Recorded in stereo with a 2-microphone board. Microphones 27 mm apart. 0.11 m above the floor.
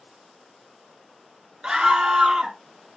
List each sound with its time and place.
1.6 s a scream: 25° right (ahead or behind), 1.2 m